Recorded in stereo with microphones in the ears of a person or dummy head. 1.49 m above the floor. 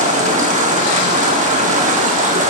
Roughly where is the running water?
Right.